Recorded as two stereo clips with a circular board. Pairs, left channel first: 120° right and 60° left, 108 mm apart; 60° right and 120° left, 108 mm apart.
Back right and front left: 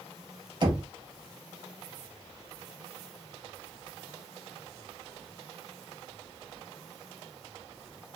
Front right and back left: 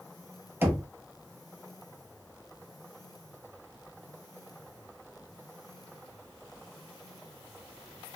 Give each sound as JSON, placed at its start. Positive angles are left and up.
{"t": 0.6, "sound": "knocking", "azimuth_deg": 60, "distance_m": 0.6}